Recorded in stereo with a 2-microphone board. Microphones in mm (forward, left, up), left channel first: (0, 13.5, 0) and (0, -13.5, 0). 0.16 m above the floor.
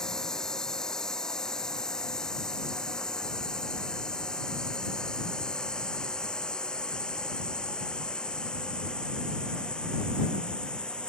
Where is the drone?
20° left (ahead or behind); by 11.1 s 30° left (ahead or behind).